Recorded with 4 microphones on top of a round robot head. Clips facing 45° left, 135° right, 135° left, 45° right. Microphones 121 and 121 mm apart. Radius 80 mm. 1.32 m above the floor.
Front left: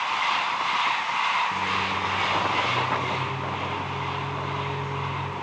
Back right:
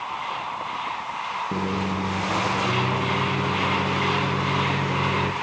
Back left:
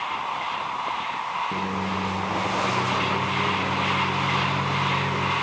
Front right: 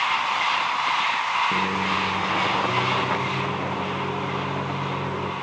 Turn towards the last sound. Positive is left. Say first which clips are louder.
# back right 2 dB, front right 3 dB
turn(degrees=-125)